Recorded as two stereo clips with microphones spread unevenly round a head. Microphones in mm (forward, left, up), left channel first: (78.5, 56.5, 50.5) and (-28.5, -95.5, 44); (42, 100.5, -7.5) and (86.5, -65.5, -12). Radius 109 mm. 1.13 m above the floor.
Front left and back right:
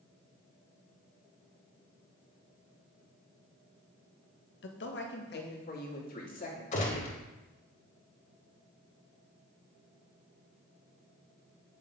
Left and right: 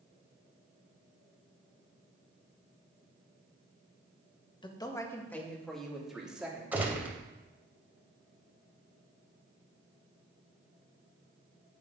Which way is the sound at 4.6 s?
45° left.